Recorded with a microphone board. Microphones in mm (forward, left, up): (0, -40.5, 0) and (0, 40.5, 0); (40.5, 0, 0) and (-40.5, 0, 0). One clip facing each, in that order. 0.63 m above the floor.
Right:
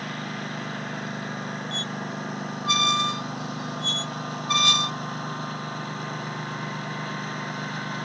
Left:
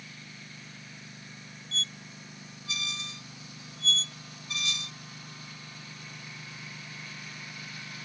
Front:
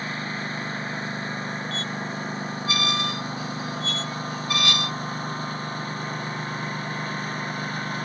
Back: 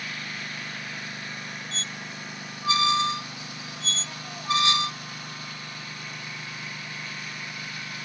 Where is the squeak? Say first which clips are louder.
Right 11 dB, front 7 dB; 115° right.